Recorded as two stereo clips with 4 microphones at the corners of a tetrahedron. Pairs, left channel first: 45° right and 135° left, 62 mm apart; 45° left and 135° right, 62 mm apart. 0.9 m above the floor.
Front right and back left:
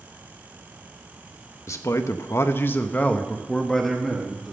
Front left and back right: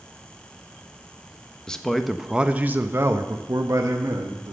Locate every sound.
1.7 s a man speaking: 30° right, 1.0 m; by 4.5 s 140° right, 1.6 m